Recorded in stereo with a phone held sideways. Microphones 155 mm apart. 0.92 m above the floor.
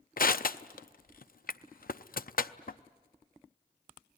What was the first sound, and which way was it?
Crushing, 65° left (ahead or behind).